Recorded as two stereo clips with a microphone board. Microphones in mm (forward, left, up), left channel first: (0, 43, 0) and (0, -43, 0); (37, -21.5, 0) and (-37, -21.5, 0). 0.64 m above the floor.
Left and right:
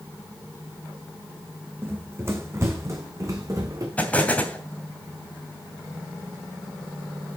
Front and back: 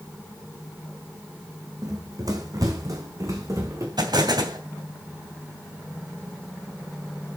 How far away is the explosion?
About 2.5 m.